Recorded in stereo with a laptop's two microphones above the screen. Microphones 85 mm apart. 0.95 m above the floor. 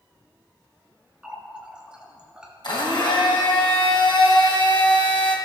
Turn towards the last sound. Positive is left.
turn(degrees=65)  # may be behind; listen again after turning